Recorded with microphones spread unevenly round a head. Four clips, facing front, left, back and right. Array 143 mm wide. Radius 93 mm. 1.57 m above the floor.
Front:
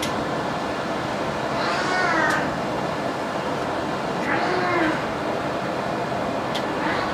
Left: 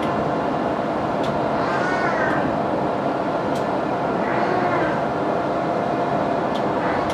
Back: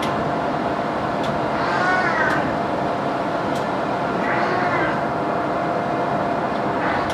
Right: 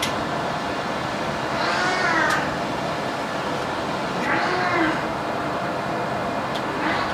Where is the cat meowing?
55° left, 7 m; by 7.0 s 65° left, 12 m.